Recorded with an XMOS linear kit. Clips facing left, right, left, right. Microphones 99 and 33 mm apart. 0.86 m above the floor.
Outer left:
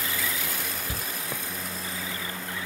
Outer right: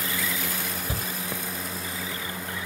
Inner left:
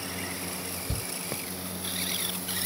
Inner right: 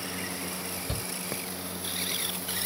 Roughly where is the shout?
Right.